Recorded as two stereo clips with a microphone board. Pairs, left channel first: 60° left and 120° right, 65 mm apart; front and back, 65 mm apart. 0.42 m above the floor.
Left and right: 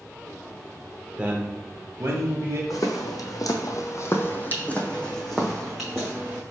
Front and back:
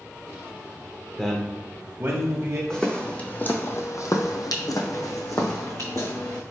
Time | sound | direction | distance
1.2 | a man speaking | 60° right | 0.8 m
2.7 | footsteps | 80° left | 1.1 m